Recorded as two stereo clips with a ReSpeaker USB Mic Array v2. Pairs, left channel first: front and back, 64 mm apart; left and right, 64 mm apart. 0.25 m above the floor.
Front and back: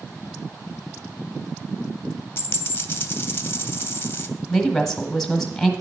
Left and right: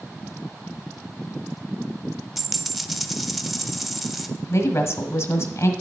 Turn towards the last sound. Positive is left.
turn(degrees=90)